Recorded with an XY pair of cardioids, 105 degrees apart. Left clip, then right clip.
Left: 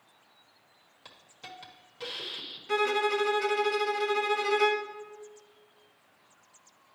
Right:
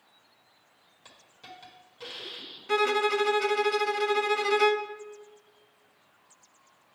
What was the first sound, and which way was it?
A hiss, 20° left.